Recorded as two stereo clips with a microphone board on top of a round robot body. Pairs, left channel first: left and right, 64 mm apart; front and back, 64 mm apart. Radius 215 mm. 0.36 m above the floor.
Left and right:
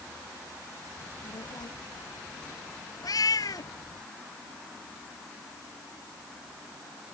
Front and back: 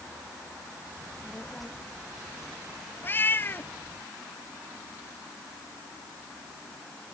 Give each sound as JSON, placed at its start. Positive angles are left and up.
{"t": 1.0, "sound": "a child speaking", "azimuth_deg": 90}
{"t": 3.0, "sound": "a cat meowing", "azimuth_deg": 60}